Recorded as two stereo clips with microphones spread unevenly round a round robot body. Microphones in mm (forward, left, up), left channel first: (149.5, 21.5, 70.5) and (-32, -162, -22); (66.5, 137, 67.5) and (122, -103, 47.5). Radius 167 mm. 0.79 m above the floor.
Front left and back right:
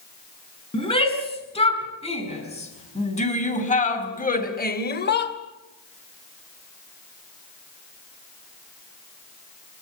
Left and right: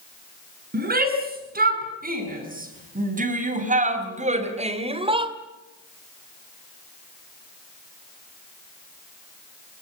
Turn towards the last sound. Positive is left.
turn(degrees=-5)